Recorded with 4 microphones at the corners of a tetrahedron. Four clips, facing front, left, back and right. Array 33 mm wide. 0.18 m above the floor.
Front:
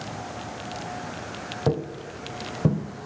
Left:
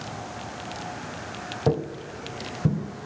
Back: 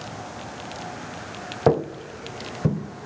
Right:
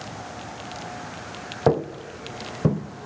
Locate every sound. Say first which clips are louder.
1.7 s footsteps: right 4 dB, back 7 dB; 145° right, 0.8 m; by 2.8 s 95° right, 1.4 m